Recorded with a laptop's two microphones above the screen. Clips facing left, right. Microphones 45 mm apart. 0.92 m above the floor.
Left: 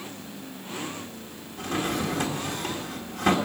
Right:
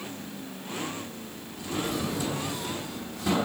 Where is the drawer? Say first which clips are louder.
Left 3 dB; 60° left (ahead or behind), 1.6 m.